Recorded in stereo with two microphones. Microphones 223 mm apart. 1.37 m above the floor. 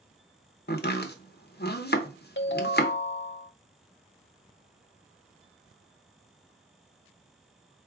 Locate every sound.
0.7 s chopping: 45° left (ahead or behind), 0.7 m
2.4 s a ringtone: 55° left (ahead or behind), 0.5 m